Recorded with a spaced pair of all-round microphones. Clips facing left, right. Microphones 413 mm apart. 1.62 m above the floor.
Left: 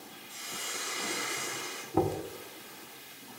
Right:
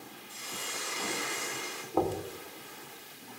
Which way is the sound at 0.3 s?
5° right (ahead or behind).